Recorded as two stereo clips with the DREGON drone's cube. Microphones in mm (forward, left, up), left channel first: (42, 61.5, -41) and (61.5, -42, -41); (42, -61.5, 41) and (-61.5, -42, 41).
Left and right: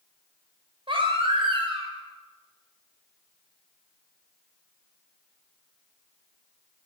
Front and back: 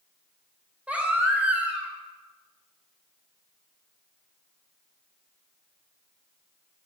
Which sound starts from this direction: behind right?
A baby crying, at 0.9 s.